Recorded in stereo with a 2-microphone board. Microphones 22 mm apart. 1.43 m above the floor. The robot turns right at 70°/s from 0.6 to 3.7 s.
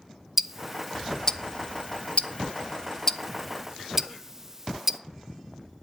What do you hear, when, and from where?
0.4 s ticking: 10° right (ahead or behind), 0.8 m; by 5.0 s 25° right (ahead or behind), 0.8 m